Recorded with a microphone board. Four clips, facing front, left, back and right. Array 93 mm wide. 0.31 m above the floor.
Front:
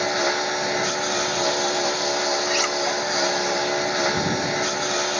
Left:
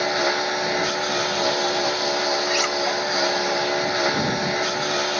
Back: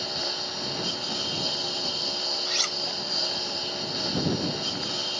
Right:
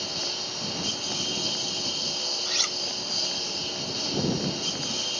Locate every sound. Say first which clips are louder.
0.0 s a lawn mower: left 15 dB, front 12 dB; 50° left
2.5 s cutlery clinking: left 13 dB, front 11 dB; 50° left